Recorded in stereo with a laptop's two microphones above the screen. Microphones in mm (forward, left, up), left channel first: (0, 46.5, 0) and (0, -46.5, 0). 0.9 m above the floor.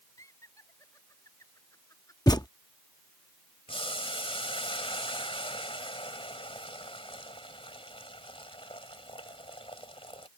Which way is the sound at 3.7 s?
80° left.